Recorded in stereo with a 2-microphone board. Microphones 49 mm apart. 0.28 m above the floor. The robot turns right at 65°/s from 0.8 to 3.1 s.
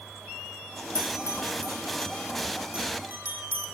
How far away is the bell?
About 2.5 m.